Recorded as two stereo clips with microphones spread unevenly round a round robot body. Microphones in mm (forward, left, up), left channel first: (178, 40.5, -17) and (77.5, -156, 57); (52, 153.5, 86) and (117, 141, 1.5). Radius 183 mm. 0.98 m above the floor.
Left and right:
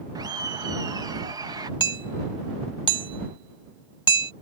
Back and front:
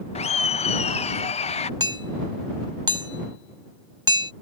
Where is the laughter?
155° left.